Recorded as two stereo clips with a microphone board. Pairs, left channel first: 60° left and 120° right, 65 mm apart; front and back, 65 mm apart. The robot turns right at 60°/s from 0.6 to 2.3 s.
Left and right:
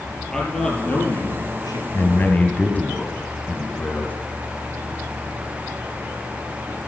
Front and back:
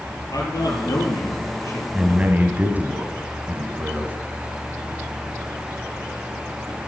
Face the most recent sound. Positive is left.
turn(degrees=120)